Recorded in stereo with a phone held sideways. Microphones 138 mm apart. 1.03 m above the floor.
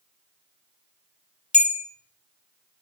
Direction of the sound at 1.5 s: 60° left (ahead or behind).